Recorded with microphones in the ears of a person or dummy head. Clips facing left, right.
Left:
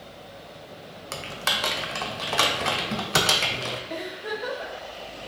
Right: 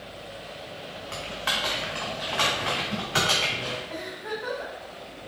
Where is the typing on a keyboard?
50° left (ahead or behind), 0.5 m.